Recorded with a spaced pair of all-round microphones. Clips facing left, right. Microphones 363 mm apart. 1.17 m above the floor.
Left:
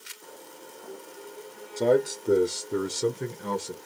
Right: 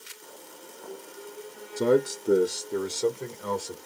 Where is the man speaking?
20° right (ahead or behind), 0.7 m; by 3.8 s 35° left (ahead or behind), 1.2 m.